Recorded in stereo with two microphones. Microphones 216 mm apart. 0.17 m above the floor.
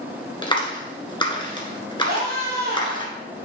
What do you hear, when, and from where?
0.4 s a clap: 20° left (ahead or behind), 1.8 m
2.1 s a scream: 45° right (ahead or behind), 3.5 m